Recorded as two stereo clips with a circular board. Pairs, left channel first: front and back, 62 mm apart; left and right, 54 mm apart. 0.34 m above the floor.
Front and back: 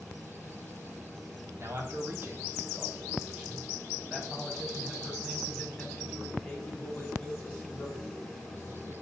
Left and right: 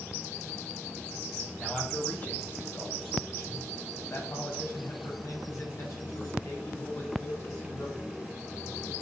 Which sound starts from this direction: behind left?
A man speaking, at 1.6 s.